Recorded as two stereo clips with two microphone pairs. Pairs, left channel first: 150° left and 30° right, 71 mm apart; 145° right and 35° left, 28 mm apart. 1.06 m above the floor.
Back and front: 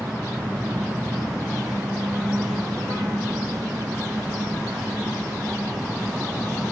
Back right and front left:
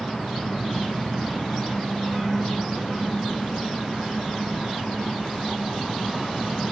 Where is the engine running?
80° right.